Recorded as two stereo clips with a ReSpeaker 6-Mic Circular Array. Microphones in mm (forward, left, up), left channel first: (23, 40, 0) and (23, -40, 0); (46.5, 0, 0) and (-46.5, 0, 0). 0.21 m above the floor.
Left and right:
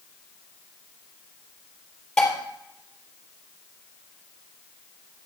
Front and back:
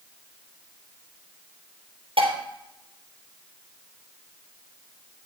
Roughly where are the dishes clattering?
Behind.